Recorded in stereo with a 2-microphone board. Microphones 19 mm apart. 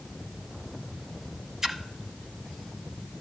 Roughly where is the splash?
Right.